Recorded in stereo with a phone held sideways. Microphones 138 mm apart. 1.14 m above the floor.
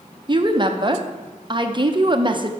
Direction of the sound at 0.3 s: 35° right (ahead or behind).